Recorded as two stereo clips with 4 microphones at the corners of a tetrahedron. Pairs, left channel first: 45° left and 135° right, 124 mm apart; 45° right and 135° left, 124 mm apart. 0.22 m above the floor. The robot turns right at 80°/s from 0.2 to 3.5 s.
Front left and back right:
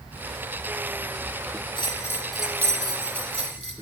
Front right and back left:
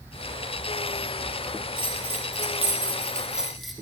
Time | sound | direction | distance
1.8 | a bell | 85° left | 1.2 m